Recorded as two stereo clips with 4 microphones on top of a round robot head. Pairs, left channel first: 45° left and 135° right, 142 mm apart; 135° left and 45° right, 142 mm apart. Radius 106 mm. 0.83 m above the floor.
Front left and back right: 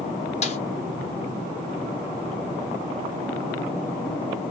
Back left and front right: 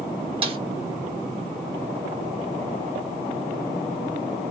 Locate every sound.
0.4 s a snare drum: 5° left, 1.4 m